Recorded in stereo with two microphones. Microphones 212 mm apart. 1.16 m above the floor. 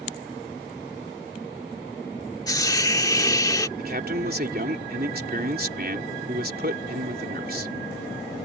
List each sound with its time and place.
2.5 s a hiss: 20° left (ahead or behind)
3.8 s a man speaking: 50° right (ahead or behind)